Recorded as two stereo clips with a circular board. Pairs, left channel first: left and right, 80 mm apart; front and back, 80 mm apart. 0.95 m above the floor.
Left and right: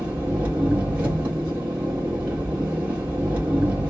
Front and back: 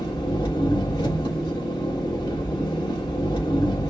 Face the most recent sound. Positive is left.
turn(degrees=-15)